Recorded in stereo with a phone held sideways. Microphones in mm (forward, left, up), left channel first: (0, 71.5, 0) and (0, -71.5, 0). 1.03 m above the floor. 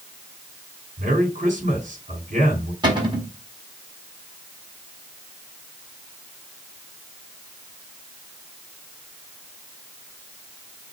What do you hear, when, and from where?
1.0 s a man speaking: 60° right (ahead or behind), 3.5 m
2.8 s a cupboard door: 35° right (ahead or behind), 3 m